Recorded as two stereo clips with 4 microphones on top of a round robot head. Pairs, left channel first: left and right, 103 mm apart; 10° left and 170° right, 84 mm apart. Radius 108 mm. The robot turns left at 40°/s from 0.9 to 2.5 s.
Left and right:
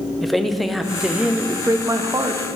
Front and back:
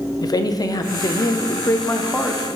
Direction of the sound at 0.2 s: Straight ahead.